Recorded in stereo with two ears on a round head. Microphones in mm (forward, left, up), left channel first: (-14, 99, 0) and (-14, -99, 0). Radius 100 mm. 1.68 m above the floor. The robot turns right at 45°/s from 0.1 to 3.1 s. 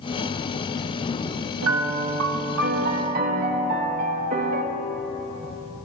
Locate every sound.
1.6 s a piano: 105° right, 1.0 m; by 4.6 s 40° right, 1.0 m